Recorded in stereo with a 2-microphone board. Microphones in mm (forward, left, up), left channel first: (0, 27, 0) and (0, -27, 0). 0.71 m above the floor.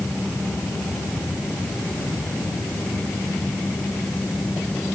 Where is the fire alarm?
I don't hear a fire alarm.